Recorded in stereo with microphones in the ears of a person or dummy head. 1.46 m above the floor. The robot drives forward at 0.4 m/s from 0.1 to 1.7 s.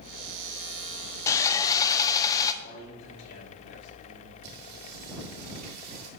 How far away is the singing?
About 2.5 m.